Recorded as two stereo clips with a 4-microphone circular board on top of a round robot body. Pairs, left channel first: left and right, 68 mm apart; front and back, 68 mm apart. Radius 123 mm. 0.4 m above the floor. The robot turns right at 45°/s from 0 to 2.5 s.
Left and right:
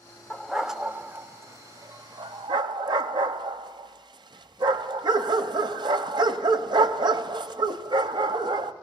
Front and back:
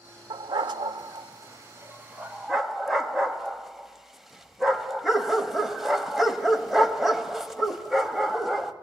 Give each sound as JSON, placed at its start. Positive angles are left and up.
{"t": 0.3, "sound": "a dog barking", "azimuth_deg": 170, "distance_m": 0.8}